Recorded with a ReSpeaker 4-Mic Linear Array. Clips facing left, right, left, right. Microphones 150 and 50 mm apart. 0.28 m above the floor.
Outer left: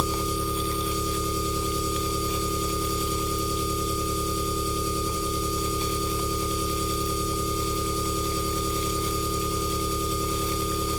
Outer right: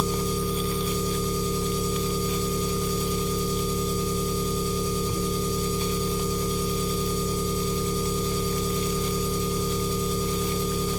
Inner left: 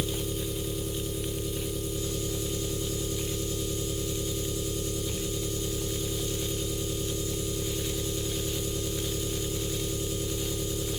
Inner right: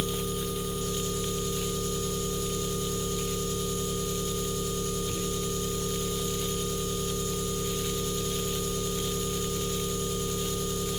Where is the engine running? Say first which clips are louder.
Outer right 2 dB, inner right 1 dB; 45° right (ahead or behind), 3 m.